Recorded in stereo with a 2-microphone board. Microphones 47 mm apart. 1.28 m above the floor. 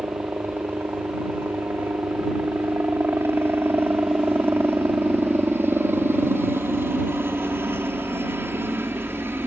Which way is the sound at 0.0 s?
55° right (ahead or behind).